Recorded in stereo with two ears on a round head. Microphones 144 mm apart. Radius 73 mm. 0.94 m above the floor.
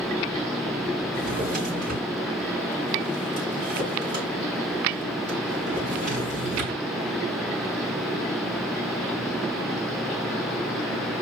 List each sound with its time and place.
1.1 s a drawer: 50° right (ahead or behind), 4.5 m